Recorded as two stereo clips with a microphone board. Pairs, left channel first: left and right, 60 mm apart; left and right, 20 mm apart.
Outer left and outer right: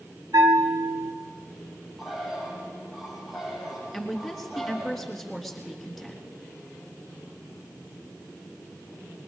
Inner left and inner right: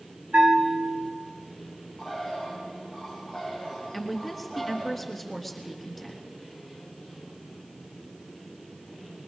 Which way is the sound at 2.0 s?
Centre (ahead or behind).